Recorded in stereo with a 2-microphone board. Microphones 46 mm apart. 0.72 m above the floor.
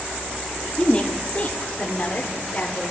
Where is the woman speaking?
25° left (ahead or behind), 1.1 m; by 2.9 s 35° left (ahead or behind), 2 m.